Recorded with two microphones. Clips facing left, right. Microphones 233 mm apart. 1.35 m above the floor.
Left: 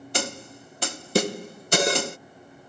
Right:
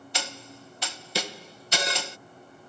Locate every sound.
0.1 s a snare drum: 50° left (ahead or behind)